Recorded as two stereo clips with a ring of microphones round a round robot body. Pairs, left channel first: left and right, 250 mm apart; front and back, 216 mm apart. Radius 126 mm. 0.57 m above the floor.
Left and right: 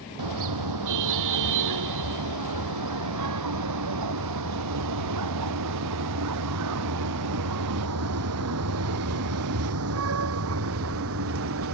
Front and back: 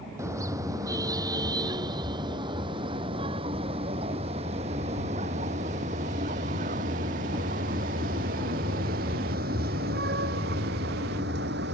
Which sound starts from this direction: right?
A car horn, at 0.2 s.